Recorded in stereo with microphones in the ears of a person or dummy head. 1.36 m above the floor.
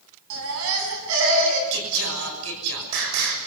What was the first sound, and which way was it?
A baby crying, 75° right (ahead or behind).